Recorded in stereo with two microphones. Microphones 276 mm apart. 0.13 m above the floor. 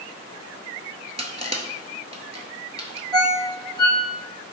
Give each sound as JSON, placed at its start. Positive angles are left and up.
{"t": 1.2, "sound": "crushing", "side_deg": -25, "distance_m": 0.5}
{"t": 3.1, "sound": "a ringtone", "side_deg": -15, "distance_m": 1.6}